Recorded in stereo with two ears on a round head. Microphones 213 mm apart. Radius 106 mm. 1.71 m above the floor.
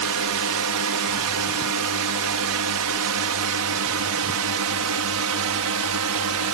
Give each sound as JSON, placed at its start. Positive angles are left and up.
{"t": 0.0, "sound": "a drone", "side_deg": -70}